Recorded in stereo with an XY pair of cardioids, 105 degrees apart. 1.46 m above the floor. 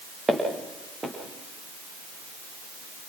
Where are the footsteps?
20° right, 7.5 m.